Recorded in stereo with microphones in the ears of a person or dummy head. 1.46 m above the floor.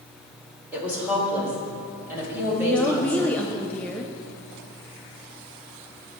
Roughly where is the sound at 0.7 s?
Centre.